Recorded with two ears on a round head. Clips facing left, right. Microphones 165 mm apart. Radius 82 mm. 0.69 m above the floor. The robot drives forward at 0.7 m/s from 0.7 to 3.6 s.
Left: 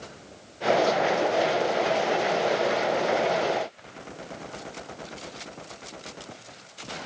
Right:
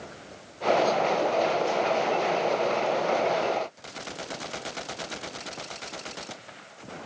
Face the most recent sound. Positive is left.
No sound to turn to.